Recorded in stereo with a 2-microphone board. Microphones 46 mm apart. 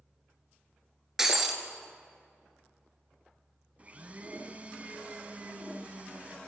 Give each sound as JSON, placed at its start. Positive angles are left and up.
{"t": 1.2, "sound": "breaking glass", "side_deg": -10, "distance_m": 0.9}
{"t": 3.8, "sound": "a blender", "side_deg": -30, "distance_m": 0.6}